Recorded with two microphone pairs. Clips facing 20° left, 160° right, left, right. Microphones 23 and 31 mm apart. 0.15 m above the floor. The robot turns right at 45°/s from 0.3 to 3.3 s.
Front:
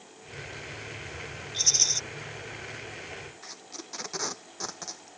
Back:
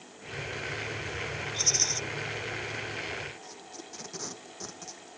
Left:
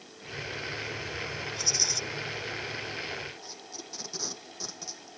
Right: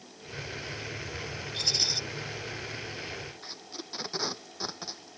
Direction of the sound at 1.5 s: 60° right.